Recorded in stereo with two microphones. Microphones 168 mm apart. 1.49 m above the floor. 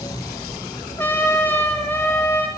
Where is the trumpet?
15° left (ahead or behind), 1.4 m.